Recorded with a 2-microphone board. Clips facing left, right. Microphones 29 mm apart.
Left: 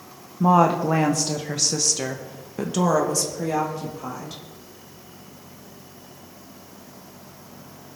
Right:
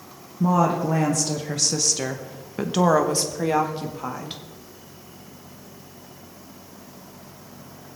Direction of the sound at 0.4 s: 55° left (ahead or behind).